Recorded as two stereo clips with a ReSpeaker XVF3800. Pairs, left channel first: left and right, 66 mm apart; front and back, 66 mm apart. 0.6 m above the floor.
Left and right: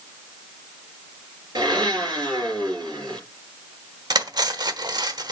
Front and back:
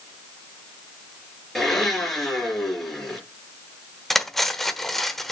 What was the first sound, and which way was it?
A blender, 85° right.